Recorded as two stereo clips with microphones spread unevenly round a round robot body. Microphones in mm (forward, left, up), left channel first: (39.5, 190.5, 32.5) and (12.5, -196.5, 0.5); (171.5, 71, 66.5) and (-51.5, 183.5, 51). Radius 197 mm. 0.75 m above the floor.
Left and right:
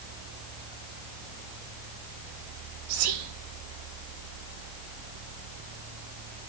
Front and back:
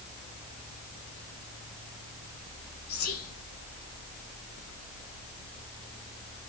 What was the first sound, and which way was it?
Whispering, 70° right.